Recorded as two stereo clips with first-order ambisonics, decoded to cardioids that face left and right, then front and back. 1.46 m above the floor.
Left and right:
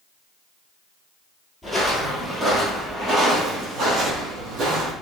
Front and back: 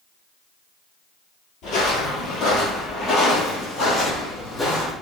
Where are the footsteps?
5° right, 1.8 m; by 4.9 s 70° right, 2.5 m.